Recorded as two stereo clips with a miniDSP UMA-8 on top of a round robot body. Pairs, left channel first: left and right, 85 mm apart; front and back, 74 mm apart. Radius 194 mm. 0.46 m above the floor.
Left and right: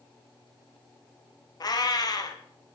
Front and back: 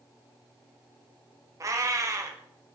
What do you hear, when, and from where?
1.6 s a cat meowing: 135° left, 1.6 m